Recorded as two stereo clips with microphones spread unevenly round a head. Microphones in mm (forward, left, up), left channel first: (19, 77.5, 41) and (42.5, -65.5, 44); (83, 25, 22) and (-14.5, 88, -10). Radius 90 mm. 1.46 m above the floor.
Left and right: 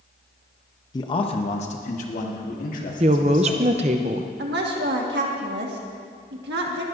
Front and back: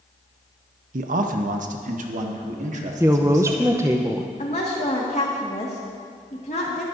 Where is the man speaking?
165° left, 0.6 m; by 4.0 s 130° left, 2.5 m.